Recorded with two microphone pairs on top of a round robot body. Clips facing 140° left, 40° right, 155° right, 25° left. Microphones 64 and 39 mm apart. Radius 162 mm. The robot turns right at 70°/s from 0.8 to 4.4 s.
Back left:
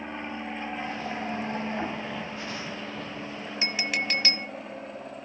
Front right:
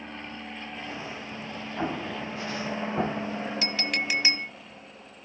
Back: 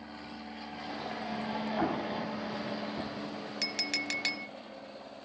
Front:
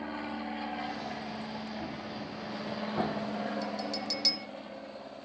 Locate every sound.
0.0 s an aircraft: 75° left; by 5.2 s 105° left
1.8 s an explosion: 120° right; by 3.3 s 10° right
3.6 s a clink: 155° right; by 4.5 s 100° right